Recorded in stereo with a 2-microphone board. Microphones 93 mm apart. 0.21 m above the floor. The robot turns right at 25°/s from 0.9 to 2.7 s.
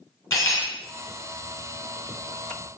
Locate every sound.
0.3 s cutlery clinking: 35° left (ahead or behind), 1.4 m